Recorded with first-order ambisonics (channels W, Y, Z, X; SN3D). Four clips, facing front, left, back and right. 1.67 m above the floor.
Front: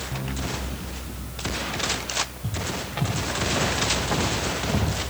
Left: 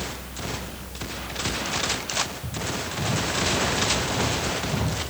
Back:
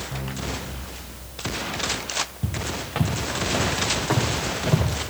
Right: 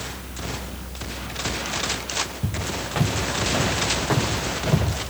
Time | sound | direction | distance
2.4 | footsteps | 140° right | 8.5 m